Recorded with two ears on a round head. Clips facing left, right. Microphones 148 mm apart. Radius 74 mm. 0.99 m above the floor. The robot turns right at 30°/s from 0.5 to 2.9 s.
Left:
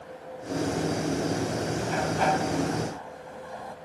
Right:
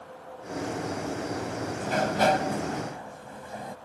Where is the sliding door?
60° right; by 3.8 s 25° right.